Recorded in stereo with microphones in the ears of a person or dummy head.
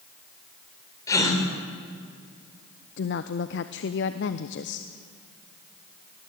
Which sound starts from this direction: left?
A woman speaking, at 3.0 s.